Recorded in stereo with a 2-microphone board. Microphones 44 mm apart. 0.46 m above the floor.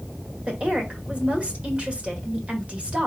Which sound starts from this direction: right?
A woman speaking, at 0.5 s.